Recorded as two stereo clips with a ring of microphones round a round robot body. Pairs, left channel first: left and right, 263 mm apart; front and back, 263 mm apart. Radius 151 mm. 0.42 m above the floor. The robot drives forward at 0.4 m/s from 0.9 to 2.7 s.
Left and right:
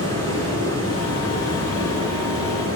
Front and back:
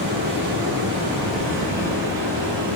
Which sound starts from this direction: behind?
Running water, at 0.0 s.